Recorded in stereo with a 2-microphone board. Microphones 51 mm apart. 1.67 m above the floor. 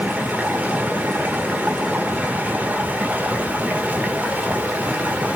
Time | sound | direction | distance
0.0 | running water | 25° right (ahead or behind) | 1.5 m